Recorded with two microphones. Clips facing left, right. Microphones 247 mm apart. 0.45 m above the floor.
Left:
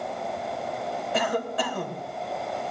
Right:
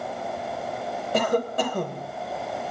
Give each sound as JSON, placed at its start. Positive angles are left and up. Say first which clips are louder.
{"t": 1.1, "sound": "a cough", "louder": "right 5 dB", "side_deg": -45, "distance_m": 2.0}